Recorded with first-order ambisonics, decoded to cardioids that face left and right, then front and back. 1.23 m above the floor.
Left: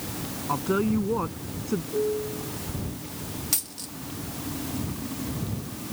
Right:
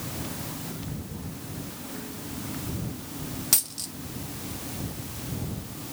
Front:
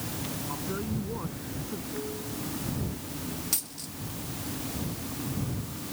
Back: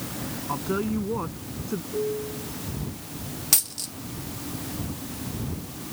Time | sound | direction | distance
0.5 | a woman speaking | 115° left | ?
1.9 | a piano | 120° left | ?
3.5 | a dropped coin | 150° right | ?